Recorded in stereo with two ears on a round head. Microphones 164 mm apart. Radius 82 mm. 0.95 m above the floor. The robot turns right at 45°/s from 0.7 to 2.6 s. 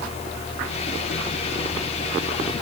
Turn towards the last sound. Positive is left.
No sound to turn to.